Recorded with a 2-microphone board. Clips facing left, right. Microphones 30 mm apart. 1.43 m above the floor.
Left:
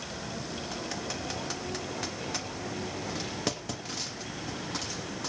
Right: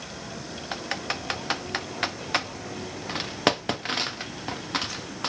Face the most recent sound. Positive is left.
turn(degrees=-75)  # may be behind; listen again after turning